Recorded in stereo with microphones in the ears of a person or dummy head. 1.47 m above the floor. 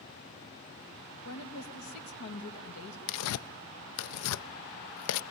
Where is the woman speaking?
80° left, 2 m.